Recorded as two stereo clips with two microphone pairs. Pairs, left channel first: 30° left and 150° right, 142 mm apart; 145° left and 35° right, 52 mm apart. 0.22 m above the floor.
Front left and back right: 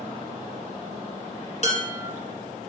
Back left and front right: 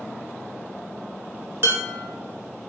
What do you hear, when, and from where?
1.6 s dishes clattering: straight ahead, 2 m